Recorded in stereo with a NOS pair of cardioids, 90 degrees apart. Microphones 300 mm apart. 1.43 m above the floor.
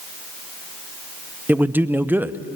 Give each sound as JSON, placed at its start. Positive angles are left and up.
{"t": 1.5, "sound": "a man speaking", "azimuth_deg": -5, "distance_m": 0.9}